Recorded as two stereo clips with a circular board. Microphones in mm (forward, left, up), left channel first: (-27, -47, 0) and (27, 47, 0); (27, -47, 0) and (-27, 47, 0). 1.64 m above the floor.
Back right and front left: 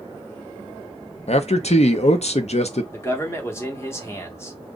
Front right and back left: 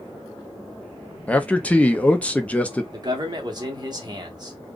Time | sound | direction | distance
1.3 | a man speaking | 140° right | 0.6 m
2.9 | a man speaking | 170° left | 1.2 m